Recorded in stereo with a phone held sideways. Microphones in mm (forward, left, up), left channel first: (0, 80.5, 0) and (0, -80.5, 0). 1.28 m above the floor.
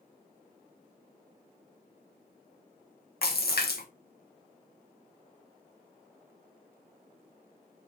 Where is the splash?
75° left (ahead or behind), 1.2 m.